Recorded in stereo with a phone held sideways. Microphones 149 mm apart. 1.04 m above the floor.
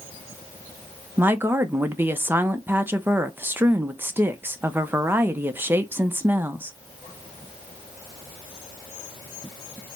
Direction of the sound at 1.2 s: 15° right (ahead or behind).